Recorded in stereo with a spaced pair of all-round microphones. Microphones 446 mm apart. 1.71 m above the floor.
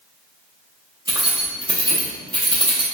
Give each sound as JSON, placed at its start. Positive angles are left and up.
{"t": 1.1, "sound": "keys jangling", "side_deg": -10, "distance_m": 0.6}